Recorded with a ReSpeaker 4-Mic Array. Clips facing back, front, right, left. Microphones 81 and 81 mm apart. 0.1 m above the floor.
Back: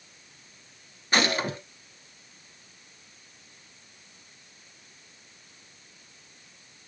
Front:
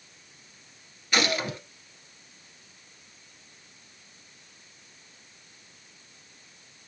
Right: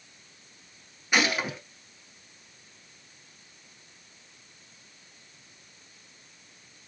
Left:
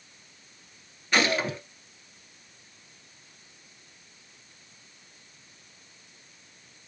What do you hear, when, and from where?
1.1 s a gunshot: 160° right, 1.3 m